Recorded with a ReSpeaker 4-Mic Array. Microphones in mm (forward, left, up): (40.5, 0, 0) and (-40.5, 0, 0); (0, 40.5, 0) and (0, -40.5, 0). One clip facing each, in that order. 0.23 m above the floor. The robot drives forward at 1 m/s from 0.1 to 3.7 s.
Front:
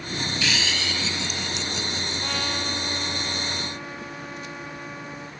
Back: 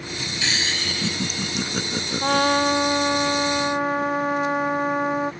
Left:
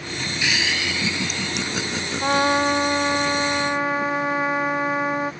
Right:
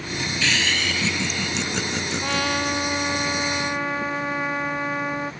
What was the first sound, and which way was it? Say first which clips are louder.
Laughter: back 2 dB, even; 155° left.